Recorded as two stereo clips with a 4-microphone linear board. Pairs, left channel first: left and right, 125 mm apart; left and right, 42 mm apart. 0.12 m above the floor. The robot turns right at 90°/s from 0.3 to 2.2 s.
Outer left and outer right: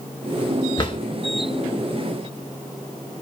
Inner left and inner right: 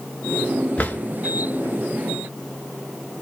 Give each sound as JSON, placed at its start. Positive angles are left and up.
{"t": 0.8, "sound": "a drawer", "side_deg": 35, "distance_m": 0.6}